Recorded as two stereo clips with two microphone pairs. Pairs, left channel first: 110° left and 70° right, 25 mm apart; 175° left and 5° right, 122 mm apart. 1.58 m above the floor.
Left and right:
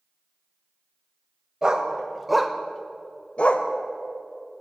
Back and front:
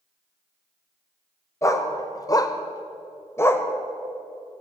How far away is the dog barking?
About 2.0 m.